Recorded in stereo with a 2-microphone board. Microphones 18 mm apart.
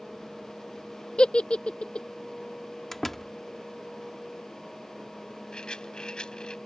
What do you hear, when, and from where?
1.2 s a giggle: 75° left (ahead or behind)
2.9 s a door slam: 20° left (ahead or behind)
5.5 s a rattle: 50° left (ahead or behind)